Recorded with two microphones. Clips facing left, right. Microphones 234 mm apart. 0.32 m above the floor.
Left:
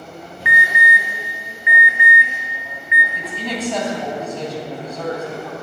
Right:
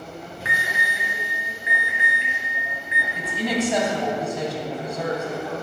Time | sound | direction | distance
0.5 | an alarm | 35° right (ahead or behind) | 1.6 m
3.1 | a woman speaking | 15° right (ahead or behind) | 2.0 m